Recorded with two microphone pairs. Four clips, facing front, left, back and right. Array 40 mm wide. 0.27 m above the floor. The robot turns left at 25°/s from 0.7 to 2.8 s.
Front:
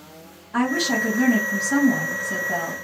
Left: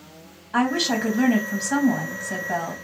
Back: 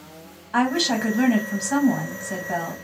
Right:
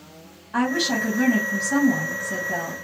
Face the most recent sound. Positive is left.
turn(degrees=110)